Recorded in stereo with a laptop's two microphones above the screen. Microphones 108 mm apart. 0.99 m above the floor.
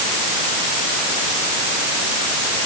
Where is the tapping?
No tapping in this recording.